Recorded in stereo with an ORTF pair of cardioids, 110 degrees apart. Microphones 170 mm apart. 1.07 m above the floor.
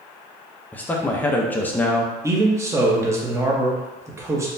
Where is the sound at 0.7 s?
10° left, 0.6 m.